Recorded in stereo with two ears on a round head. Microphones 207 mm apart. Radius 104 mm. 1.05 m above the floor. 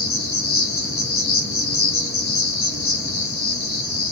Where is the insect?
45° left (ahead or behind), 1.1 m.